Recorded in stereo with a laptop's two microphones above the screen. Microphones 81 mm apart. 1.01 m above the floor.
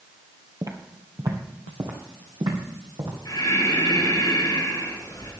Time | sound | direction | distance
0.6 | footsteps | 35° right (ahead or behind) | 1.4 m
3.2 | breathing | 50° left (ahead or behind) | 5.5 m